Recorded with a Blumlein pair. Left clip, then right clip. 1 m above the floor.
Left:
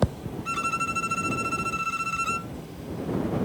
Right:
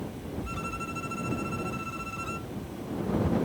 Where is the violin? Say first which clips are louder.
Left 11 dB; 65° left.